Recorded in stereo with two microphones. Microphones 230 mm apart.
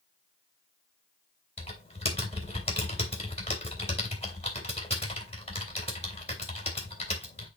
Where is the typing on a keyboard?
25° left (ahead or behind), 2.5 m.